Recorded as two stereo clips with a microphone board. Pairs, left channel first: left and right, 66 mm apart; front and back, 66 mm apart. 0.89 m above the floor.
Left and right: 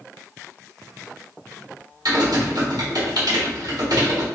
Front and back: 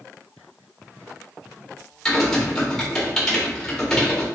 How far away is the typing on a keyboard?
About 1.4 m.